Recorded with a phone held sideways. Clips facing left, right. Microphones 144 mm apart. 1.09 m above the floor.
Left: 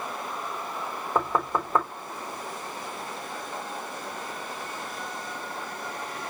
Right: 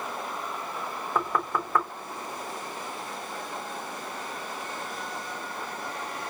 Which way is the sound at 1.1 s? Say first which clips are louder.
Left 2 dB; 25° left (ahead or behind).